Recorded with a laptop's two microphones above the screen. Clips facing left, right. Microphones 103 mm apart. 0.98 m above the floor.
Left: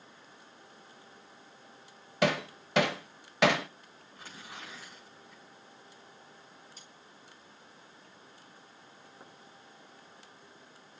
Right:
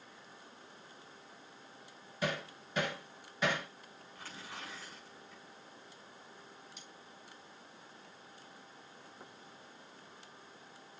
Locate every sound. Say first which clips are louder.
2.2 s hammering: left 9 dB; 75° left (ahead or behind), 0.6 m
4.2 s tearing paper: left 1 dB; 20° left (ahead or behind), 7.5 m
6.8 s cutlery clinking: right 1 dB; 35° left (ahead or behind), 3 m